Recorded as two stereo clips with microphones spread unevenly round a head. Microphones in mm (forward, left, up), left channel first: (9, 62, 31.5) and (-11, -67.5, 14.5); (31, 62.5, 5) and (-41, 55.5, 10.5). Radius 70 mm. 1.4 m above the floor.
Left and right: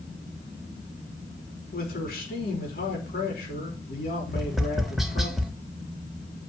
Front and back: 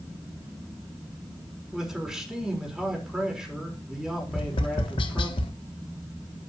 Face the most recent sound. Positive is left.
turn(degrees=-10)